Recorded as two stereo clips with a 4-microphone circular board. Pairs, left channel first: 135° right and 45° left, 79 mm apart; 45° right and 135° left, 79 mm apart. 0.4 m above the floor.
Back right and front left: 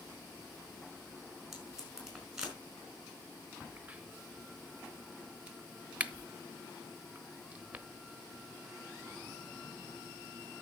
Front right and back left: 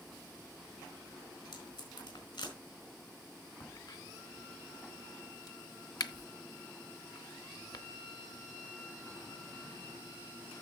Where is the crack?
25° right, 0.8 m.